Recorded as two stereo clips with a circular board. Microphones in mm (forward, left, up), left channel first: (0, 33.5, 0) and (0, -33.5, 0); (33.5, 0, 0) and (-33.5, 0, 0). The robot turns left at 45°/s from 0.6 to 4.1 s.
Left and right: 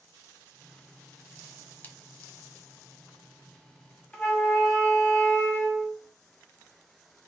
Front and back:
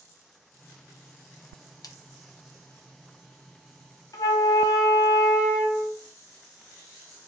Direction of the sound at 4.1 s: 15° left.